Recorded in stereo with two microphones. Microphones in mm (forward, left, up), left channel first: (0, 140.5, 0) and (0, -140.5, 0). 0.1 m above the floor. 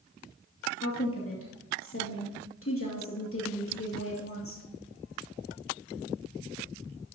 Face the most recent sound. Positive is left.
turn(degrees=50)  # may be behind; listen again after turning